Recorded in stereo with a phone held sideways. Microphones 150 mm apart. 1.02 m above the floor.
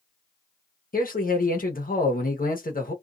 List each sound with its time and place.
0.9 s a man speaking: 70° left (ahead or behind), 1.0 m